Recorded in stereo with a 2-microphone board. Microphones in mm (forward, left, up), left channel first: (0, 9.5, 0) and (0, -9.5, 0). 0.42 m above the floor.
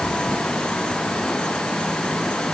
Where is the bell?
I don't hear a bell.